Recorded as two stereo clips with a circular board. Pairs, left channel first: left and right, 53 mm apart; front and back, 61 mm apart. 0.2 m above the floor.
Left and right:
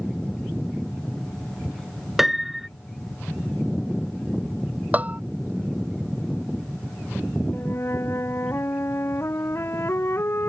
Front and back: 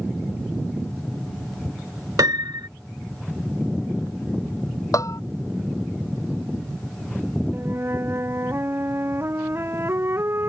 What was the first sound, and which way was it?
A piano, 175° right.